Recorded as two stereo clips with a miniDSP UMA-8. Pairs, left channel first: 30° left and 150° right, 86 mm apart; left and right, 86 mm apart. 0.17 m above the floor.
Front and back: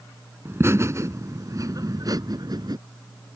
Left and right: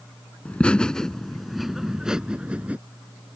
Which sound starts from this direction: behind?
Laughter, at 0.5 s.